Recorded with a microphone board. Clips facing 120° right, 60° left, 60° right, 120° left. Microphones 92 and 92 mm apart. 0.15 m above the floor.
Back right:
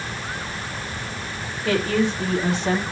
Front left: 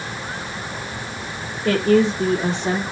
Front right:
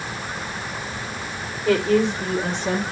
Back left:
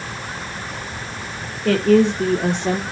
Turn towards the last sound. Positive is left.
turn(degrees=120)